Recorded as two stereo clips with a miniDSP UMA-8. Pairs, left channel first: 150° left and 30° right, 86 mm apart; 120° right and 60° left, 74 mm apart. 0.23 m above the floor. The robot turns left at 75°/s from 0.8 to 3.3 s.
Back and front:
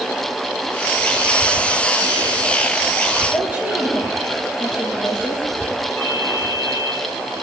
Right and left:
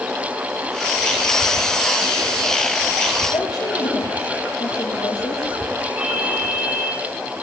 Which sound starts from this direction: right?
A woman speaking, at 3.3 s.